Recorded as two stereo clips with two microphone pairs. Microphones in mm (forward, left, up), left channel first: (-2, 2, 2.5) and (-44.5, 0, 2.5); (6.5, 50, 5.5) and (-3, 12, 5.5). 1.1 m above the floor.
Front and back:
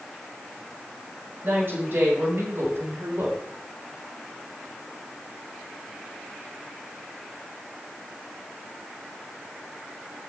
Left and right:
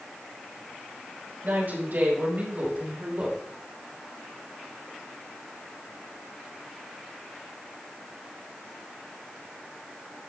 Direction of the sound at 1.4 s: 140° right.